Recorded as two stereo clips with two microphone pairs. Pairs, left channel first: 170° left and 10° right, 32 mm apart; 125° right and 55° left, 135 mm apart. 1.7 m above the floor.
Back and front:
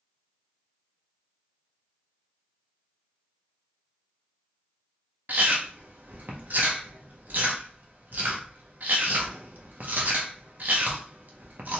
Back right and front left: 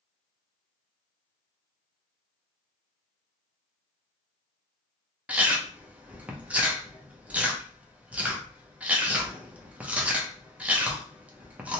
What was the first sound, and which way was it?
Chewing, 25° right.